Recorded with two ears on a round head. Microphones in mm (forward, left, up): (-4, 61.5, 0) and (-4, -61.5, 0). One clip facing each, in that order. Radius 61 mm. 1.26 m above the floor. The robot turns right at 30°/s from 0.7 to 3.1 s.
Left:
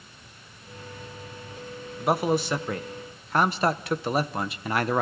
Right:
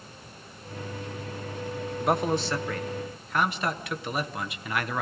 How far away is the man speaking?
About 1.1 m.